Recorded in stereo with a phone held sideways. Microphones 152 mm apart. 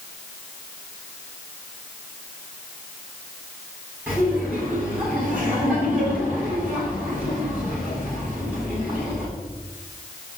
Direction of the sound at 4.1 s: 5° right (ahead or behind).